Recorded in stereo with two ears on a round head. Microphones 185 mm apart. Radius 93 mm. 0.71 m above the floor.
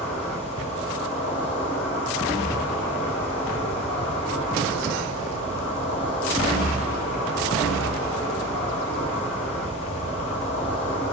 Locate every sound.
0.0 s an insect: 70° left (ahead or behind), 3 m